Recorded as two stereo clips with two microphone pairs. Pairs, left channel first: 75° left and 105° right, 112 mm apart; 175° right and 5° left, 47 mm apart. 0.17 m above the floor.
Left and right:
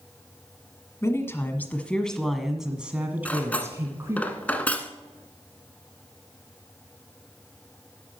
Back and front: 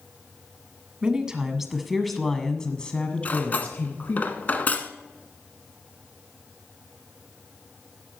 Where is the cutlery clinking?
145° left, 1.1 m.